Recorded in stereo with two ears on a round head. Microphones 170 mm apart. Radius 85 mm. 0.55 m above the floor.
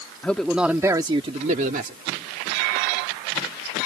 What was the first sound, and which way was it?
A man speaking, 10° left (ahead or behind).